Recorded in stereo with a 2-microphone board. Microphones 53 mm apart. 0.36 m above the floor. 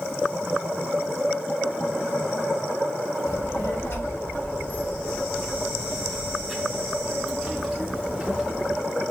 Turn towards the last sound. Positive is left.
turn(degrees=-5)  # may be behind; listen again after turning